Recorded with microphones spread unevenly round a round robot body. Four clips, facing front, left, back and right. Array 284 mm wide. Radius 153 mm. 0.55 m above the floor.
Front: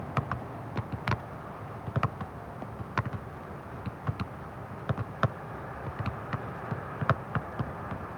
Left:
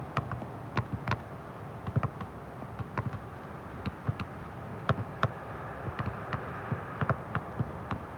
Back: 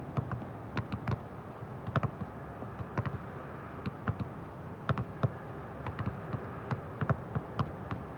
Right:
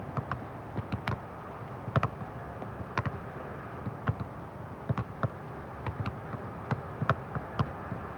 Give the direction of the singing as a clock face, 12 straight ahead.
I don't hear singing.